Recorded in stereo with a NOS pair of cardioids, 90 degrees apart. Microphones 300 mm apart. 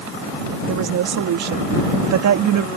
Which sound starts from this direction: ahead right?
A woman speaking, at 0.7 s.